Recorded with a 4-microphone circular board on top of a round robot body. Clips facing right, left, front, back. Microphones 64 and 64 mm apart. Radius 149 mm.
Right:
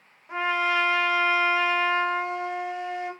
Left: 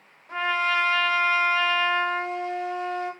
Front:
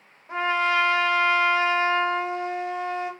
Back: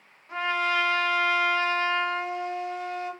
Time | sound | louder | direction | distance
0.3 | a trumpet | even, front 3 dB | 25° right | 1.1 m